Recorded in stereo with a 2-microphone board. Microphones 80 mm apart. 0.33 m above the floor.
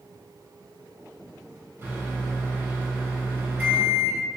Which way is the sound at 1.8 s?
25° right (ahead or behind).